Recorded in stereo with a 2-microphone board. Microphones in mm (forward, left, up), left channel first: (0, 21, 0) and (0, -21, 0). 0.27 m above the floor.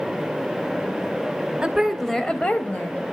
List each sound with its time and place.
1.6 s a woman speaking: 25° right (ahead or behind), 1.0 m; by 3.0 s 50° left (ahead or behind), 1.3 m